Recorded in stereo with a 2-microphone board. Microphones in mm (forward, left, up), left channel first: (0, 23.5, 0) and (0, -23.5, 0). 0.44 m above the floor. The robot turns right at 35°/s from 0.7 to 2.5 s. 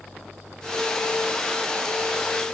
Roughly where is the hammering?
I don't hear hammering.